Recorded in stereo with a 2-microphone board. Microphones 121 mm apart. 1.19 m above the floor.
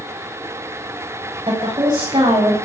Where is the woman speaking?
40° right (ahead or behind), 7.5 m; by 2.5 s 35° right (ahead or behind), 7.5 m.